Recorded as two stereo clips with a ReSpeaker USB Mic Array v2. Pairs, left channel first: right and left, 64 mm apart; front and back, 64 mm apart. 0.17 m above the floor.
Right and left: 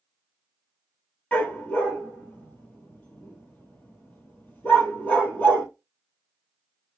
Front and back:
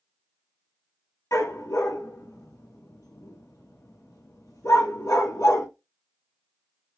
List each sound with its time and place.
1.3 s a dog barking: 25° right, 1.4 m